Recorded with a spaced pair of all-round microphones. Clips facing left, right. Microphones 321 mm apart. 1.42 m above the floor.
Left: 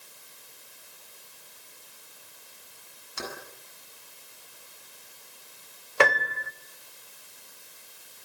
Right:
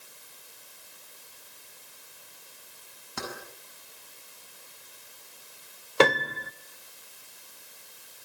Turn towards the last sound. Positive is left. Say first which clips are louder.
# right 3 dB
turn(degrees=-45)  # may be behind; listen again after turning